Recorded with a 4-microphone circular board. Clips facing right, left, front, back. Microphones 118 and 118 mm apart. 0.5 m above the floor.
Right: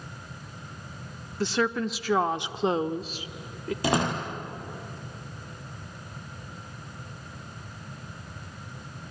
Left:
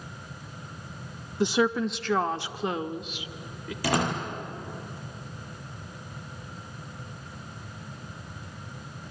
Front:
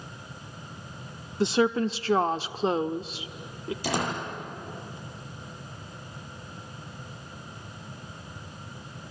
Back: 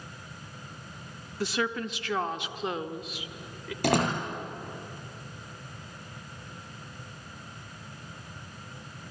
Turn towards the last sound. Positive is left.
turn(degrees=-155)